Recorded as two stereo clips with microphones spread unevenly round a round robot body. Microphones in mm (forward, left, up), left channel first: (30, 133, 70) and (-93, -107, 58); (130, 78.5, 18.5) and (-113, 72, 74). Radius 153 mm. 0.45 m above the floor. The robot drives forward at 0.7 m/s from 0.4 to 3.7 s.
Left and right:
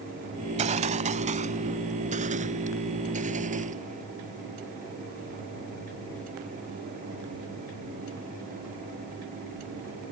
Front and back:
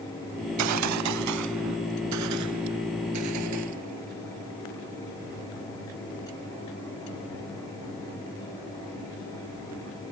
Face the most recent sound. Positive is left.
turn(degrees=180)